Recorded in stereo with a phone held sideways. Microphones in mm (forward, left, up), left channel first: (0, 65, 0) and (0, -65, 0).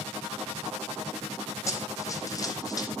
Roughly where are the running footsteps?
Left.